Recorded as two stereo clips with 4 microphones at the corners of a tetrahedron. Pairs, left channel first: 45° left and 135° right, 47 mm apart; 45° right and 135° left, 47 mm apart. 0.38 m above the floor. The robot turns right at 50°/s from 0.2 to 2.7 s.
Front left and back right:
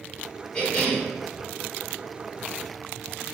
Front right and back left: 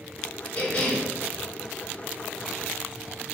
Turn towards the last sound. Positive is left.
turn(degrees=105)